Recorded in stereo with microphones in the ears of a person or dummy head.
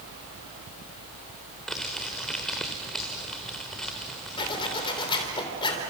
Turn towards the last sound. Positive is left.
turn(degrees=25)  # may be behind; listen again after turning